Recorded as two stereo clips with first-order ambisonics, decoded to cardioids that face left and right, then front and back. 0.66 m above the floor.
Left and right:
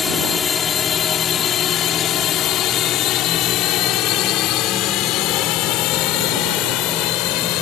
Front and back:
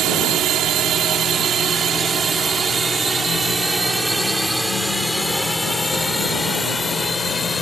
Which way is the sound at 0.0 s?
155° left.